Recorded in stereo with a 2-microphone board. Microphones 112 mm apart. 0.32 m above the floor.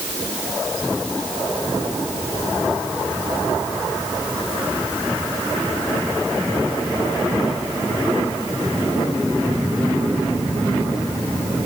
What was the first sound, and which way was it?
Only background noise.